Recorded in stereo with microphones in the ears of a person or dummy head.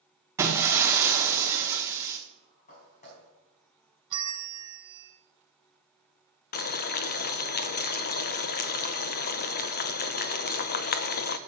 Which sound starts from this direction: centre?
Breaking glass, at 0.4 s.